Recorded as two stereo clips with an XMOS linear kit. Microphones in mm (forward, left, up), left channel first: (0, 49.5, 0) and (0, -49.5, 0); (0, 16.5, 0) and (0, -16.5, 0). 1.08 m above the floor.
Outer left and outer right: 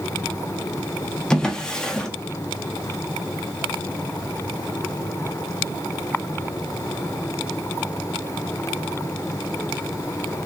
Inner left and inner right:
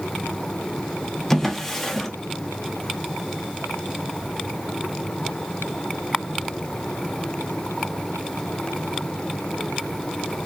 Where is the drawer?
10° left (ahead or behind), 0.6 m.